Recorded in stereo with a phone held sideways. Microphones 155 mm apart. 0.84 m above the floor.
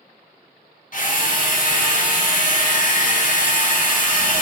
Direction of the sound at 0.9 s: 60° left (ahead or behind).